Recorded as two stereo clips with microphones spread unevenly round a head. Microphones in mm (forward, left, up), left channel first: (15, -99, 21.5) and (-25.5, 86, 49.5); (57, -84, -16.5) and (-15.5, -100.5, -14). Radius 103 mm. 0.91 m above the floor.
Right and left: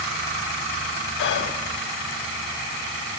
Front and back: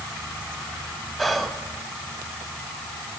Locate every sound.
1.2 s whispering: 75° right, 0.7 m